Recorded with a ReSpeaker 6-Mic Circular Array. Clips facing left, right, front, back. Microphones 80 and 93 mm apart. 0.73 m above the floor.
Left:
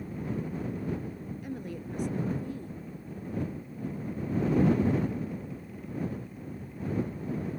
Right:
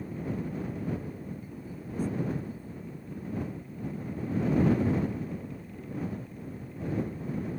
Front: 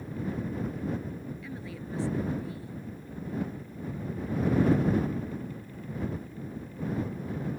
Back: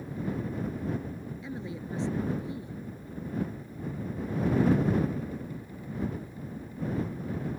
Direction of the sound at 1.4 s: 110° left.